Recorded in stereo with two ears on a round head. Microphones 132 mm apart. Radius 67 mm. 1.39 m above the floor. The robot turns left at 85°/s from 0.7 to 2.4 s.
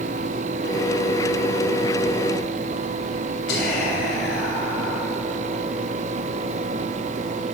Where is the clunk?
I don't hear a clunk.